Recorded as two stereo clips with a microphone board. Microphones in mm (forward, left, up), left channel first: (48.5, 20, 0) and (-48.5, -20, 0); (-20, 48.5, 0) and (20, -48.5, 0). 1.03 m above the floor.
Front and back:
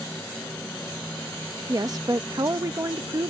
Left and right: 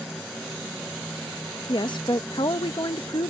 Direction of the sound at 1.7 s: 150° left.